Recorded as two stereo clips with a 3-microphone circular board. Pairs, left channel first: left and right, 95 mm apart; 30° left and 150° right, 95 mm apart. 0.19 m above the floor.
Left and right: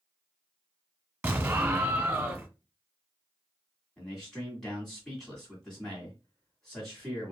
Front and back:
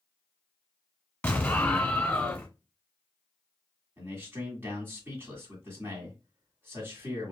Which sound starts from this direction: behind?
A man speaking, at 4.0 s.